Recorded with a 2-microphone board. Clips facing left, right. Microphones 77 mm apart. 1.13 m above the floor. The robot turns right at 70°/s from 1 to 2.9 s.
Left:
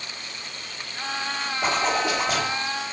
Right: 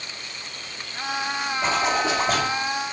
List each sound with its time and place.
1.6 s a zipper: 175° left, 1.4 m; by 2.5 s 120° right, 1.4 m